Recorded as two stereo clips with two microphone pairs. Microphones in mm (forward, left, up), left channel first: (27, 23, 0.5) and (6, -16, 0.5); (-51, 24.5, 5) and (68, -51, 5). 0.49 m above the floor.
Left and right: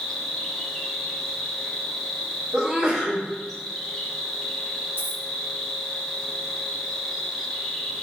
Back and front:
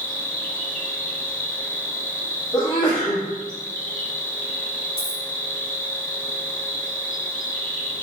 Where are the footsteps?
I don't hear footsteps.